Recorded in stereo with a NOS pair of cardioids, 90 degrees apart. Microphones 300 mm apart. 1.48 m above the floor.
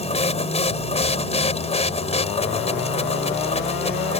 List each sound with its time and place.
0.0 s a machine running: 20° left